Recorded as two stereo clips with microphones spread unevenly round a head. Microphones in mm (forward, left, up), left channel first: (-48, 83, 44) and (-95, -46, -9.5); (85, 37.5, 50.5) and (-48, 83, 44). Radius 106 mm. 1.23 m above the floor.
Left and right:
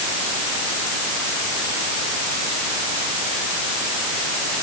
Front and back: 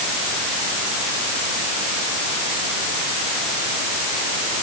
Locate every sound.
Only background noise.